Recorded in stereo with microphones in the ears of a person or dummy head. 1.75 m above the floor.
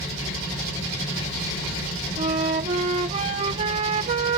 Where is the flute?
35° right (ahead or behind).